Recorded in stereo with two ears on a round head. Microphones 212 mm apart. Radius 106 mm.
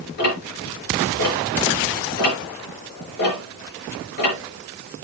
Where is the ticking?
45° left (ahead or behind), 5 m.